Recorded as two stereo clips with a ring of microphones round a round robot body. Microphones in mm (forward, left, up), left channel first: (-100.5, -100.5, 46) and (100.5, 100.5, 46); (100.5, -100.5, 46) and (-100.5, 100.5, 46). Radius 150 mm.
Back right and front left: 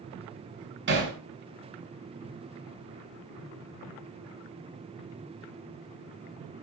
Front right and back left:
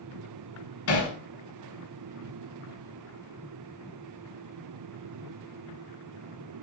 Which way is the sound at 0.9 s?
5° right.